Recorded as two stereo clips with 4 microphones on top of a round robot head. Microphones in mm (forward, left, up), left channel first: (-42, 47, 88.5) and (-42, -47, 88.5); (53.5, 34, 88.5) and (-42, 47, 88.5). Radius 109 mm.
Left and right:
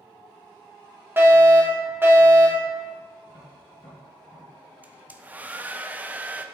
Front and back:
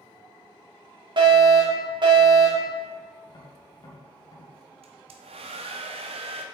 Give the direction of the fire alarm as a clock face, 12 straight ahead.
5 o'clock.